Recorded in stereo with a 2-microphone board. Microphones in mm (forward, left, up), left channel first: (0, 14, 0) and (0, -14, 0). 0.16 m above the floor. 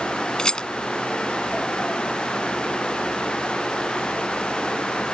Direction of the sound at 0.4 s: 30° left (ahead or behind).